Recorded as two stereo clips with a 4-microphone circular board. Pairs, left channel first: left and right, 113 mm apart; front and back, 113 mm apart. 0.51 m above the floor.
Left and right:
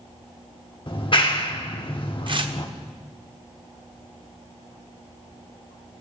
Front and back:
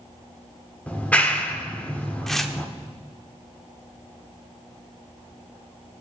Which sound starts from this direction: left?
A clap, at 0.9 s.